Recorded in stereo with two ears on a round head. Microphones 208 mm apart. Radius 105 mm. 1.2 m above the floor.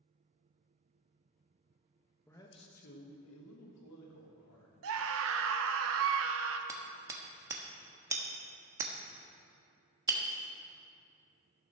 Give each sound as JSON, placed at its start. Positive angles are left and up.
{"t": 2.3, "sound": "a man speaking", "side_deg": 10, "distance_m": 1.5}
{"t": 4.8, "sound": "a scream", "side_deg": -65, "distance_m": 1.1}
{"t": 6.7, "sound": "hammering", "side_deg": -15, "distance_m": 1.1}